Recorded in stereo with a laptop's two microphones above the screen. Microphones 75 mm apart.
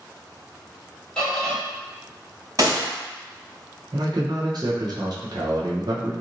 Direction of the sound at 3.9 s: 60° right (ahead or behind).